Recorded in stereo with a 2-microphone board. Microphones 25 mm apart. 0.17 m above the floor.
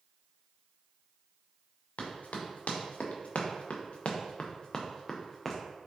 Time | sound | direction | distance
2.0 | running footsteps | 80° left | 1.8 m